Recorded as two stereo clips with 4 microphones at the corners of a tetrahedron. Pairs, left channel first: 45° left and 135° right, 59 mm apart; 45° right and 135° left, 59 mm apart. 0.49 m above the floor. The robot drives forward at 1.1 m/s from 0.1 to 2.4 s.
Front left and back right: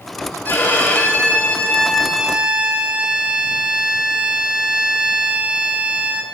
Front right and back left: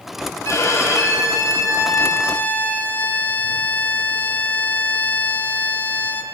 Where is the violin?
15° right, 2.5 m; by 6.2 s 75° right, 0.9 m.